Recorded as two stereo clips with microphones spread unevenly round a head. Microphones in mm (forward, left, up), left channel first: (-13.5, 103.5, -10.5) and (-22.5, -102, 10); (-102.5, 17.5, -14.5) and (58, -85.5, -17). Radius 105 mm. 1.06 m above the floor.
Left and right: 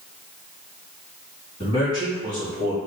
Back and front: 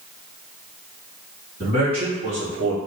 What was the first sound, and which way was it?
A man speaking, 25° left.